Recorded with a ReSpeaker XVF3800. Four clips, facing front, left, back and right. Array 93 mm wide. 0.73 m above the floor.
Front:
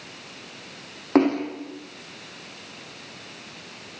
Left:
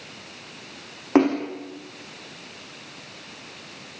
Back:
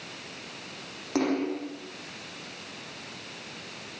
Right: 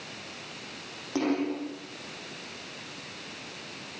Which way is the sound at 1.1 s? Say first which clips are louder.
Left 8 dB, front 7 dB; 50° left.